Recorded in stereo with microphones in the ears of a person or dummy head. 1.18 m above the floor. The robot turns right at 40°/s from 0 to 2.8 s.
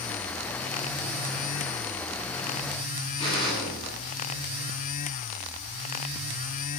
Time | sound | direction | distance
3.2 | a gunshot | 35° left (ahead or behind) | 8 m